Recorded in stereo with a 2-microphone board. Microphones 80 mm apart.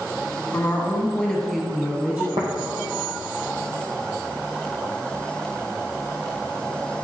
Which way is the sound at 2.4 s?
70° right (ahead or behind).